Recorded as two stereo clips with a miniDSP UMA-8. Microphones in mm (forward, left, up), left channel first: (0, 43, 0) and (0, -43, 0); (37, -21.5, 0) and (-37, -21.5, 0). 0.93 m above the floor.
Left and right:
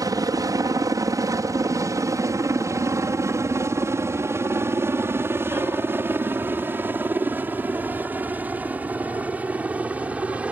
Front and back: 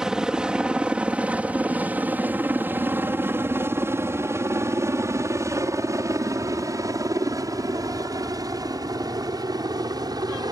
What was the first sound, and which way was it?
A helicopter, 100° right.